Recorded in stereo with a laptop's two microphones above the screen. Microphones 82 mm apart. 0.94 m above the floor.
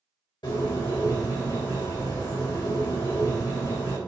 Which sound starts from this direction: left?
A bird, at 0.4 s.